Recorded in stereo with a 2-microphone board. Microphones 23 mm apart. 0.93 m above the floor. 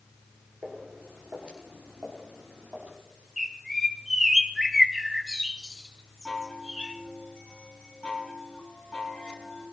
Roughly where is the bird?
Centre.